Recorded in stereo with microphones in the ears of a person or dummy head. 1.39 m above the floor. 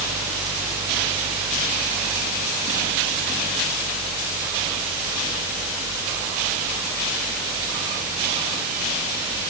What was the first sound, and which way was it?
Only background noise.